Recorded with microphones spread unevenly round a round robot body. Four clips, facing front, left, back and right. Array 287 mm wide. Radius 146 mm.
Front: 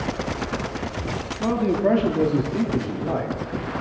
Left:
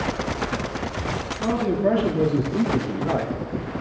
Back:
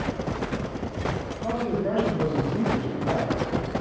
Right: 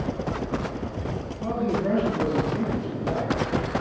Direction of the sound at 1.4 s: 20° left.